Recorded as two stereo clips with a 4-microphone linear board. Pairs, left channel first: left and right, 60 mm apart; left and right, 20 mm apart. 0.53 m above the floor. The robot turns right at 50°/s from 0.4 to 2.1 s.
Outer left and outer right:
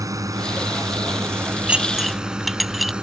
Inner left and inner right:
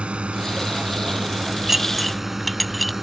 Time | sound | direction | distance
0.0 | a drone | 75° right (ahead or behind) | ?
1.7 | dishes clattering | 20° right (ahead or behind) | ?